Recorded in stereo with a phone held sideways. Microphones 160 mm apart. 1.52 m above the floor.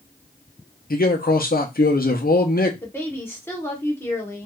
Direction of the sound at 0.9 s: 65° left (ahead or behind).